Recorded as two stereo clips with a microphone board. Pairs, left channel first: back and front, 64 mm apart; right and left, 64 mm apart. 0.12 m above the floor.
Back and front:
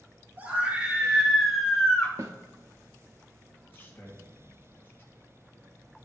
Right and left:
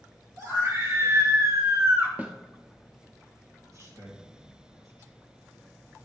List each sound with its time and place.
0.4 s a scream: 60° left, 3 m; by 2.1 s 130° left, 1.9 m
2.2 s a snare drum: 25° left, 1.0 m
3.6 s a man speaking: 125° left, 3 m